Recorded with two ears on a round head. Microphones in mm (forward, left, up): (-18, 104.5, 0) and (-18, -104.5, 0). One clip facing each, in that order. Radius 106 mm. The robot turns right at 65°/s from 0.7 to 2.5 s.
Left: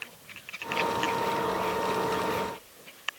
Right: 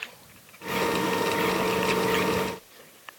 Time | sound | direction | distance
1.5 | a whoosh | 20° right (ahead or behind) | 8 m